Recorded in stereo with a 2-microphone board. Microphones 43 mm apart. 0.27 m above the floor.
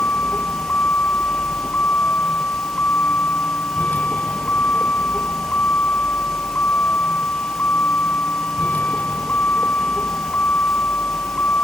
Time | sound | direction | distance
0.0 | a vehicle | 45° left (ahead or behind) | ?